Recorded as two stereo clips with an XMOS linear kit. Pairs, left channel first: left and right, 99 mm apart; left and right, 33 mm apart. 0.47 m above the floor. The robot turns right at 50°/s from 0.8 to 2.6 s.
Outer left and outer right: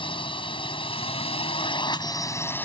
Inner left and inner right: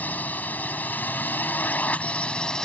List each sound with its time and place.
0.0 s a drone: 70° left; by 2.7 s 160° left